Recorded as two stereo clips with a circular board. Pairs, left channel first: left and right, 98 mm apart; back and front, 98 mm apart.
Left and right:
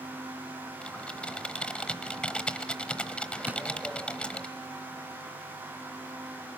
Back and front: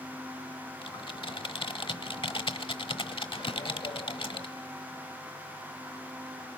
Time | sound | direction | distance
0.8 | typing on a keyboard | 170° left | 1.0 m
3.5 | a drawer | 160° right | 1.9 m